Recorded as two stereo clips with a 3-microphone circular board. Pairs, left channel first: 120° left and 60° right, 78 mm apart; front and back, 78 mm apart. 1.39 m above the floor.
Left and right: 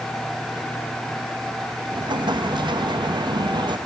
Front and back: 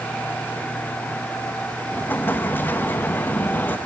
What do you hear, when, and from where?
1.9 s an explosion: 65° right, 1.3 m